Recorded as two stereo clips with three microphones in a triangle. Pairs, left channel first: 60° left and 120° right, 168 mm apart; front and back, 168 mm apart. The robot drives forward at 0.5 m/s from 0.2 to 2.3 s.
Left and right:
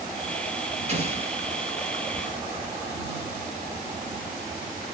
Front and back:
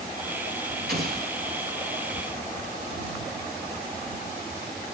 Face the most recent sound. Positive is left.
turn(degrees=-170)